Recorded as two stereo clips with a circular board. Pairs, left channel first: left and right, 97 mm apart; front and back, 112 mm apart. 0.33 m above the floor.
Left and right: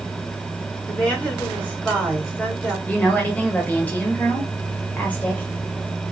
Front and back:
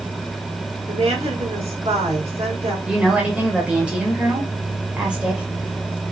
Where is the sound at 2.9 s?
120° left, 1.4 m.